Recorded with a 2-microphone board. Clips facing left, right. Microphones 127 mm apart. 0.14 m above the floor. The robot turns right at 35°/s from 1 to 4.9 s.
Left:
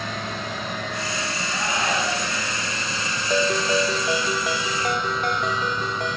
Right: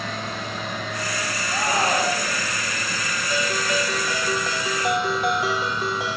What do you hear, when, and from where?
1.5 s a shout: 85° right, 2 m; by 2.5 s 50° right, 2 m
3.3 s a ringtone: 130° left, 1.5 m; by 6.2 s 175° right, 1.5 m